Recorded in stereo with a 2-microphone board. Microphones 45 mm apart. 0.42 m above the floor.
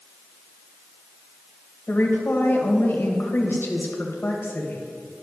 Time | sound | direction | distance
1.9 | a woman speaking | 60° left (ahead or behind) | 2.0 m